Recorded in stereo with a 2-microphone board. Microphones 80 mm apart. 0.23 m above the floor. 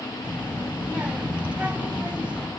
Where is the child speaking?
15° right (ahead or behind), 0.6 m.